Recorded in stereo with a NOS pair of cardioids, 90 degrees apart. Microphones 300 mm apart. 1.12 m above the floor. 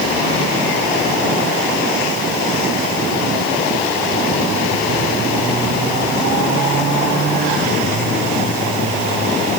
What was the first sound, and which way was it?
Only background noise.